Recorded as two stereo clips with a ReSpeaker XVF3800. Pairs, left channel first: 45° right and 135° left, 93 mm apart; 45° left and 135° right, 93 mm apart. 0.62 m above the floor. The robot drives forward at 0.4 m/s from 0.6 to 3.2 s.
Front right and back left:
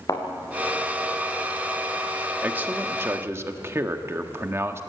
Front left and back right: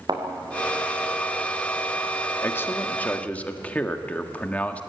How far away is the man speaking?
About 1.3 m.